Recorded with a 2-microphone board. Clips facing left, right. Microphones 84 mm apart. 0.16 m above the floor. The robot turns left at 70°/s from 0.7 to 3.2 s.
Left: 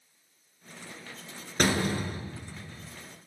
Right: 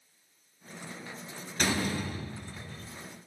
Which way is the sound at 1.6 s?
80° left.